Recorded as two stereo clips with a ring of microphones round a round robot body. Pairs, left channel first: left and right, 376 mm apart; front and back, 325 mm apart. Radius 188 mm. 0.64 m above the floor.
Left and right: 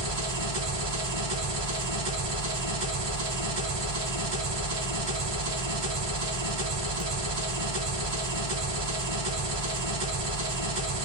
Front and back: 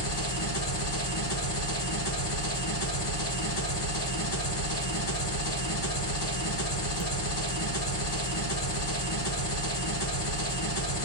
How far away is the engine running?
About 2 m.